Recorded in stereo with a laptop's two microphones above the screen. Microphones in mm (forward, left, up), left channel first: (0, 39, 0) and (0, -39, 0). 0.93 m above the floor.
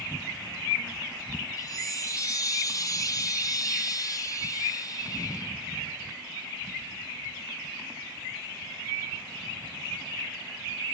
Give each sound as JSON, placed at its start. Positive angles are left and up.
{"t": 1.6, "sound": "a chime", "side_deg": 40, "distance_m": 1.0}